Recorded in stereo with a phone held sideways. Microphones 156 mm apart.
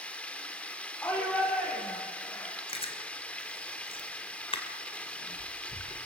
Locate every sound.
0.0 s running water: 10° left (ahead or behind), 1.8 m
1.0 s a shout: 10° left (ahead or behind), 4.5 m
2.7 s chewing: 35° left (ahead or behind), 2.5 m